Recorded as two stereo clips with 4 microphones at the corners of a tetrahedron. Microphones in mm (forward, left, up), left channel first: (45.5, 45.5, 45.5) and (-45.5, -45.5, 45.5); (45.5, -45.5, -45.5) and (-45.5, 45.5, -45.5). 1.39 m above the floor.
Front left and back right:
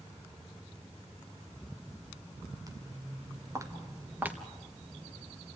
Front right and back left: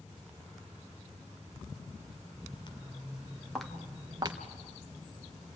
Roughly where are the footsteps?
Right.